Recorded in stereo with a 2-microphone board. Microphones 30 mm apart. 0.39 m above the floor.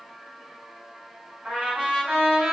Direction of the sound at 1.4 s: 45° right (ahead or behind).